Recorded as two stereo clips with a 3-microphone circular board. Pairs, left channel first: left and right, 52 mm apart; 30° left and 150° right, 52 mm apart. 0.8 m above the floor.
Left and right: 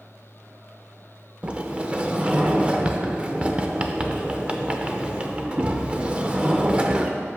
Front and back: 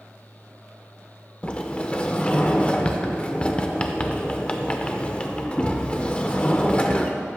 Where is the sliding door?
30° right, 0.5 m.